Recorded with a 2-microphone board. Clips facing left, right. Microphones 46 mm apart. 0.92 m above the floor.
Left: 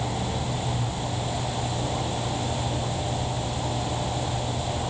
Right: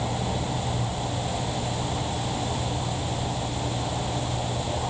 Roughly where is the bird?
I don't hear a bird.